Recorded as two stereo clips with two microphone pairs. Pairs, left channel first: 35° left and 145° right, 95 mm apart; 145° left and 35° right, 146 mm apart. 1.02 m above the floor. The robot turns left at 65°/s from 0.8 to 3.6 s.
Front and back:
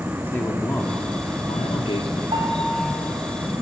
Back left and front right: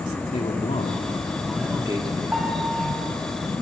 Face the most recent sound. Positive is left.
turn(degrees=160)